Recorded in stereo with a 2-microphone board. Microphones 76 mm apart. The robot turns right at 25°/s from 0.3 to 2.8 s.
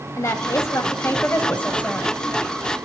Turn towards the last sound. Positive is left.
turn(degrees=175)